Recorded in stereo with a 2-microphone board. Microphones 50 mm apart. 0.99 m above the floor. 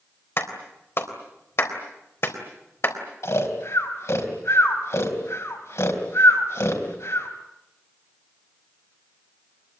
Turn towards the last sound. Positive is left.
turn(degrees=65)  # may be behind; listen again after turning